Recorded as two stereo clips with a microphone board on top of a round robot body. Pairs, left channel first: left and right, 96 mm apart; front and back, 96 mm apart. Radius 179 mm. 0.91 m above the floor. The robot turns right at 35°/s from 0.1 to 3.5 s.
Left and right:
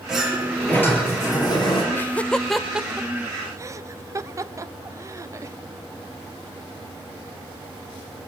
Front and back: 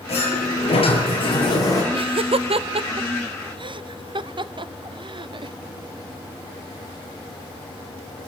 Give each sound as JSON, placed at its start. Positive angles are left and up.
{"t": 0.1, "sound": "a sliding door", "azimuth_deg": -5, "distance_m": 6.0}
{"t": 1.9, "sound": "laughter", "azimuth_deg": 155, "distance_m": 1.0}